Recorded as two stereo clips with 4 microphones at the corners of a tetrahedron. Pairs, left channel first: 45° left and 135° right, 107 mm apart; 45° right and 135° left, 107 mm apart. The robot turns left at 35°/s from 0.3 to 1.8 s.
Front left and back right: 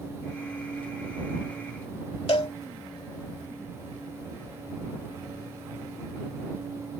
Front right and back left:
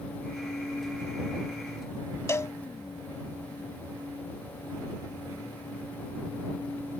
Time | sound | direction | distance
2.3 | a cowbell | 15° left | ?